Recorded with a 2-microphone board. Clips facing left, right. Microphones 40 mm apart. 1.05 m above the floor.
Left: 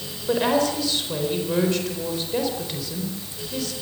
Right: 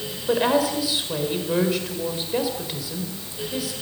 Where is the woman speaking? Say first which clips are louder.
Right 1 dB; 10° right (ahead or behind), 4 m.